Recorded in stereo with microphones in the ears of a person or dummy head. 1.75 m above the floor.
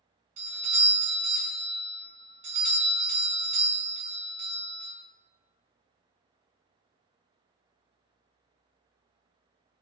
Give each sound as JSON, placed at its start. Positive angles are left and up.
{"t": 0.4, "sound": "a doorbell", "side_deg": -35, "distance_m": 1.1}